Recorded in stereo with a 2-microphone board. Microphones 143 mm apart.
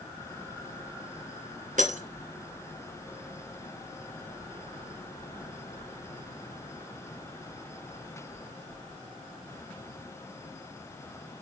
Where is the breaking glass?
60° right (ahead or behind), 1.5 m.